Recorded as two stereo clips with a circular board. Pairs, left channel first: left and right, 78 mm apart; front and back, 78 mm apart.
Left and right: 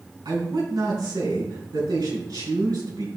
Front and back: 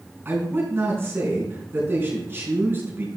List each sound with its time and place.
0.2 s a man speaking: 120° right, 4 m